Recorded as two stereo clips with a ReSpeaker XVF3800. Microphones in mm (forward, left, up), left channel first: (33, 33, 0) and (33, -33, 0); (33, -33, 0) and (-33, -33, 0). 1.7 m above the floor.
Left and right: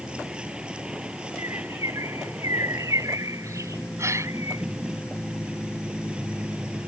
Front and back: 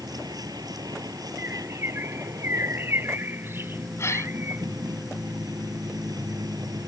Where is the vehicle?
165° right.